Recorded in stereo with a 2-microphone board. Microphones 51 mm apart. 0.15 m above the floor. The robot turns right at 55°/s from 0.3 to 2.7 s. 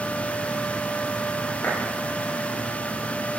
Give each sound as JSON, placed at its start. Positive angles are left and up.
{"t": 1.6, "sound": "a clap", "side_deg": 40, "distance_m": 8.0}